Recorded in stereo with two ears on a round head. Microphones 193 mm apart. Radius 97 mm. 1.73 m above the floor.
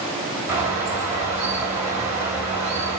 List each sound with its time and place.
0.5 s a bird: 10° right (ahead or behind), 1.6 m